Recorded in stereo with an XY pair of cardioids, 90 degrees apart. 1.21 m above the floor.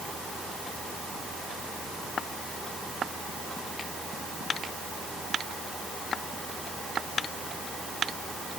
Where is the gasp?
No gasp in this recording.